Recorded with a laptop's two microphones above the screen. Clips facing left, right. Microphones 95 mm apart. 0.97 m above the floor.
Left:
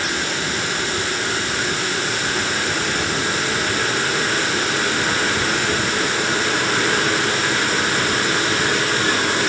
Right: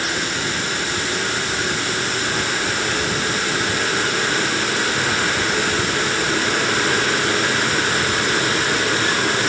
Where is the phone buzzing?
I don't hear a phone buzzing.